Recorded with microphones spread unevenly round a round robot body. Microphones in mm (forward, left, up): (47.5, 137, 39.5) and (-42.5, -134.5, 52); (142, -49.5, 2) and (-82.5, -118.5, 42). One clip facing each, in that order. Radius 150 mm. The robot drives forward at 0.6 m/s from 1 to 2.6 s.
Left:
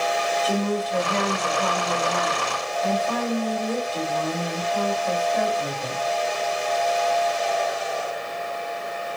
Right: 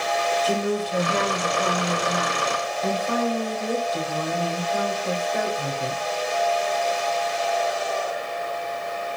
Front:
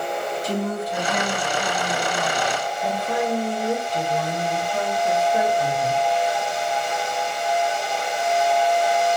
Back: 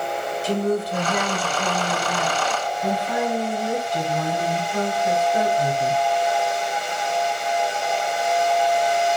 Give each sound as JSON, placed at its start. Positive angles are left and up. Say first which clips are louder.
{"t": 0.4, "sound": "a woman speaking", "louder": "left 1 dB, back 6 dB", "azimuth_deg": -175, "distance_m": 0.9}